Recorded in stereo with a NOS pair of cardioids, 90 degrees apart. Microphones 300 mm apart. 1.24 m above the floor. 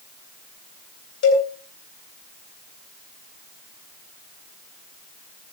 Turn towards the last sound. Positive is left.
turn(degrees=70)